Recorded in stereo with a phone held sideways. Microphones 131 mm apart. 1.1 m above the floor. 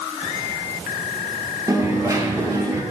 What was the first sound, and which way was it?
A dropped coin, 25° right (ahead or behind).